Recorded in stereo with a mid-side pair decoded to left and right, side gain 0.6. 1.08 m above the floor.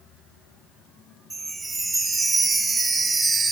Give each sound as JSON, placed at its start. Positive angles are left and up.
{"t": 1.3, "sound": "a chime", "azimuth_deg": -20, "distance_m": 1.4}